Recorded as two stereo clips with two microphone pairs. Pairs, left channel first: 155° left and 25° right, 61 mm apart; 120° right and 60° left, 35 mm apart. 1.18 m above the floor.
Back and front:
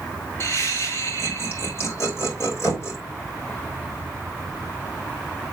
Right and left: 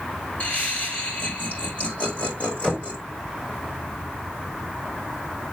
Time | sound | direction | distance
0.4 | laughter | 160° right | 5.5 m
2.6 | knocking | 175° left | 3.5 m